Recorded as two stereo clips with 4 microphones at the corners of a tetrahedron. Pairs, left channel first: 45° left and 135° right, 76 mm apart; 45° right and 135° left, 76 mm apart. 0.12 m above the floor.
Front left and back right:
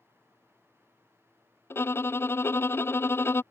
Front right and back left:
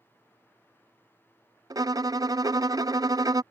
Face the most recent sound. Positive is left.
turn(degrees=100)